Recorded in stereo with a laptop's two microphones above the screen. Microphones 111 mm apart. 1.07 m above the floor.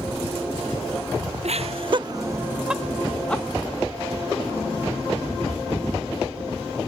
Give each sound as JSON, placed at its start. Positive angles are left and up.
{"t": 1.4, "sound": "laughter", "side_deg": -70, "distance_m": 0.6}